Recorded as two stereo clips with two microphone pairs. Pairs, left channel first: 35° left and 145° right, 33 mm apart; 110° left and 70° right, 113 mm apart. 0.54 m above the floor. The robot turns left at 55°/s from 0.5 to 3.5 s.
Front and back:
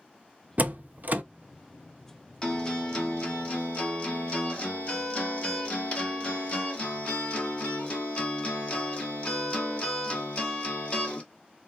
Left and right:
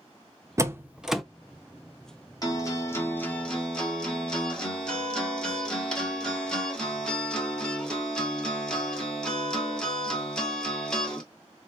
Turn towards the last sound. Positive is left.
turn(degrees=30)